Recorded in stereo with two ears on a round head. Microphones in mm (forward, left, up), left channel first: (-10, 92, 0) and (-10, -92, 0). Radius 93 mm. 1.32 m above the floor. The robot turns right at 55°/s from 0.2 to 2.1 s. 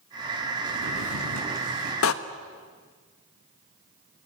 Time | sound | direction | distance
0.7 | a drawer | 115° right | 6.5 m
2.0 | a door slam | 75° left (ahead or behind) | 1.2 m